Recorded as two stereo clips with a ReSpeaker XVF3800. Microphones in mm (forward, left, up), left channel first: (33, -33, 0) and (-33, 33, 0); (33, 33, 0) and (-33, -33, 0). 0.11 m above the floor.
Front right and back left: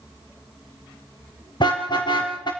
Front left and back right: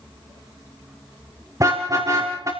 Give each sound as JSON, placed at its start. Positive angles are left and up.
{"t": 1.6, "sound": "a car horn", "azimuth_deg": -80, "distance_m": 6.0}